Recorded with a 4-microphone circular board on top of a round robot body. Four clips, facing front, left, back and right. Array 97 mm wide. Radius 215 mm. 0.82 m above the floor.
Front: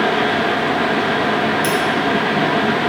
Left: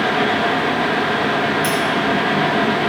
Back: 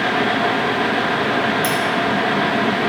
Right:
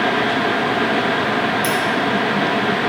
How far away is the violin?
No violin in this recording.